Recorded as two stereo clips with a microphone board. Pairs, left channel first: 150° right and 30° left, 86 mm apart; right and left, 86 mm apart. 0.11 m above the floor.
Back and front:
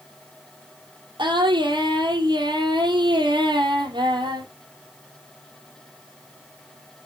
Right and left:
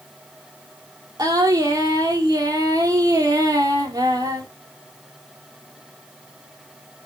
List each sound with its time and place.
1.2 s singing: 50° left, 2.5 m